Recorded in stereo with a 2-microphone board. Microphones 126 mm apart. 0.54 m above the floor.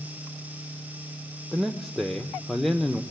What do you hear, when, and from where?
1.5 s a man speaking: centre (ahead or behind), 1.3 m